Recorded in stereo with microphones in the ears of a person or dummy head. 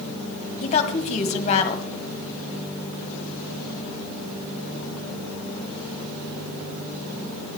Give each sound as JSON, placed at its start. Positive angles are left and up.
{"t": 0.6, "sound": "a woman speaking", "side_deg": 40, "distance_m": 1.5}